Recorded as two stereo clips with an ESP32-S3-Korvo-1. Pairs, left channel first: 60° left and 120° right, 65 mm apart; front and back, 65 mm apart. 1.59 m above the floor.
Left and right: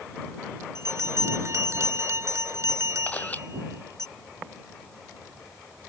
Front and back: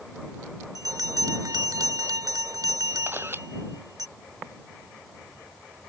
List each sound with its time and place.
0.8 s a bell: 160° right
3.1 s a camera shutter: 125° left